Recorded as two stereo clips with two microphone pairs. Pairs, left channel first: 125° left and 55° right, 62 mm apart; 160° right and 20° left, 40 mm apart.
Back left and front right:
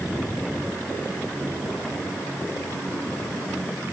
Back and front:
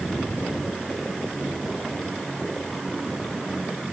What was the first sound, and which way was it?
Only background noise.